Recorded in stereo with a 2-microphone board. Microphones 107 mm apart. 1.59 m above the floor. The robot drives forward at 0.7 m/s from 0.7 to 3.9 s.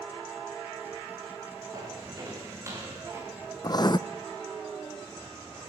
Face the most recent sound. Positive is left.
turn(degrees=40)  # may be behind; listen again after turning